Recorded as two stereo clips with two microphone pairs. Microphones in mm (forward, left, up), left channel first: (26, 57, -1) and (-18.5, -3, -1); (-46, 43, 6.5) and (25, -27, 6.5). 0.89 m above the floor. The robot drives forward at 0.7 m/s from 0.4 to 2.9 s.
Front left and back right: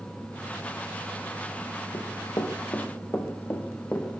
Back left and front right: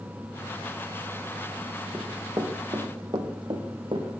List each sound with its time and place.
1.9 s running footsteps: 20° left, 3.5 m; by 4.1 s 20° right, 3.5 m